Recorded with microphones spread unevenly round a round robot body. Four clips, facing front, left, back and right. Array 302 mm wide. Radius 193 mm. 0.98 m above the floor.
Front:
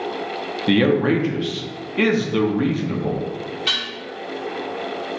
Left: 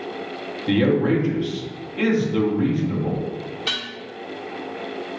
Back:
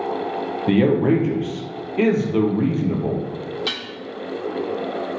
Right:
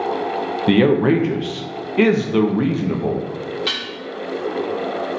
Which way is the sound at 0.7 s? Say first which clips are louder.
Right 4 dB, even; 75° right.